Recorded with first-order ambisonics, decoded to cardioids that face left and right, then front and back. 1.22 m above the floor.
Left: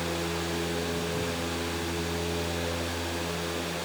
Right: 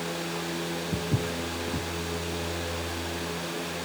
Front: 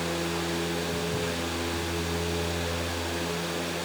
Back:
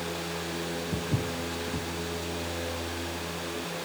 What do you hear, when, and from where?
0.9 s footsteps: 120° right, 3.5 m